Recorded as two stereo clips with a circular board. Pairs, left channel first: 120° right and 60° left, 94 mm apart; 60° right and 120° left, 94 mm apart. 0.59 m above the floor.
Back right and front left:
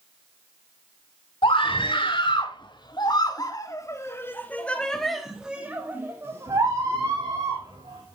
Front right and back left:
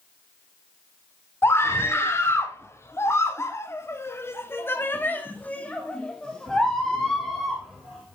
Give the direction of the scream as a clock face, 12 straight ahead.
4 o'clock.